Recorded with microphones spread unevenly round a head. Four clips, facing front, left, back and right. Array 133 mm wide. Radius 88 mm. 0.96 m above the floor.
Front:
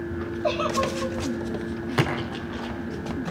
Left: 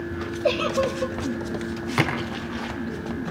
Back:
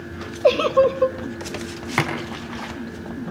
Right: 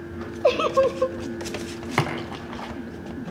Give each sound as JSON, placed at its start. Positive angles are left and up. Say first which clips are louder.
{"t": 0.4, "sound": "a giggle", "louder": "right 4 dB, back 10 dB", "azimuth_deg": -145, "distance_m": 1.1}
{"t": 2.0, "sound": "a splash", "louder": "even, back 2 dB", "azimuth_deg": -90, "distance_m": 4.5}